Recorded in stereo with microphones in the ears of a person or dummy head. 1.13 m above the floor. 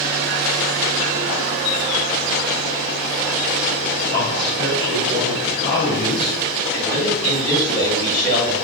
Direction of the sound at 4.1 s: 60° left (ahead or behind).